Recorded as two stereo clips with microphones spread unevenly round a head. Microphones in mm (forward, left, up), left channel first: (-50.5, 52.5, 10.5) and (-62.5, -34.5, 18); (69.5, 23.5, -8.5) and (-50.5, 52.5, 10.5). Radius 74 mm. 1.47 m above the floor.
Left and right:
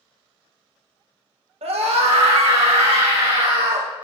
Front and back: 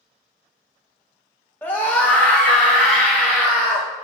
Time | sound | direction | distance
1.6 | a scream | 95° right | 1.5 m